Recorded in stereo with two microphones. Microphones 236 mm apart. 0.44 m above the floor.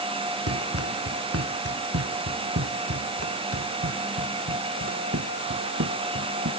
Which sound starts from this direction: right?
Running footsteps, at 0.5 s.